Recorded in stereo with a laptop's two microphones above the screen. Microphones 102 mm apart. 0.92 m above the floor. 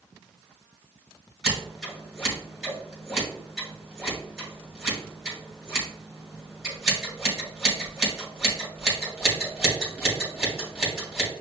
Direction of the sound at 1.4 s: 5° right (ahead or behind).